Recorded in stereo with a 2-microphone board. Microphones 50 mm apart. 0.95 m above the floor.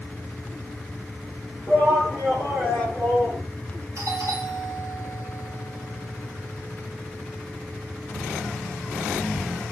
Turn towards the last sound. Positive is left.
turn(degrees=-70)  # may be behind; listen again after turning